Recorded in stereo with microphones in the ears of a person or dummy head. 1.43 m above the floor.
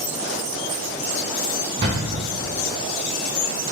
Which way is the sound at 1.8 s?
20° right (ahead or behind).